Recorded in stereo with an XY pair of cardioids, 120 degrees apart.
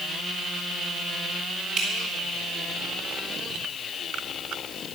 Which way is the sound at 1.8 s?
65° right.